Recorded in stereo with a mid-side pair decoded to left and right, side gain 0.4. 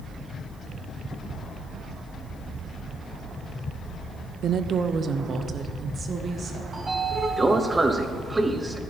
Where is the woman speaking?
65° right, 0.6 m; by 6.6 s 50° right, 1.9 m.